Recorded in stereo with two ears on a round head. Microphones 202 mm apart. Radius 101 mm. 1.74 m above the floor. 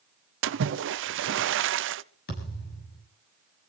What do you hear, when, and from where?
0.4 s a splash: 55° right (ahead or behind), 0.6 m
2.3 s a thud: 50° left (ahead or behind), 6.5 m